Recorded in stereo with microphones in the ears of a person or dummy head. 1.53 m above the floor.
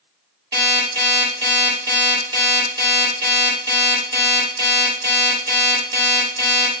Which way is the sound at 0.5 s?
20° right (ahead or behind).